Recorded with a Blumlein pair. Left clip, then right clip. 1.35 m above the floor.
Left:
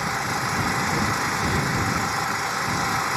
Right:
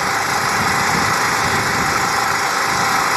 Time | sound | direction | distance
0.0 | an engine running | 25° right | ?